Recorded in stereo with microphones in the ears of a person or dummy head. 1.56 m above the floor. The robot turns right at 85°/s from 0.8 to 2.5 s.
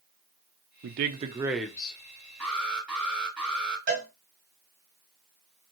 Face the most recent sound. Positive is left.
turn(degrees=-40)  # may be behind; listen again after turning